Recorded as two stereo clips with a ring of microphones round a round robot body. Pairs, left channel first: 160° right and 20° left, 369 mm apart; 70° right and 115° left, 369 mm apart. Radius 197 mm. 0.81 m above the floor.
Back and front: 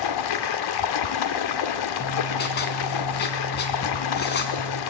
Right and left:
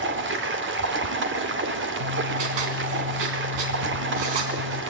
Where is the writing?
135° left, 4 m.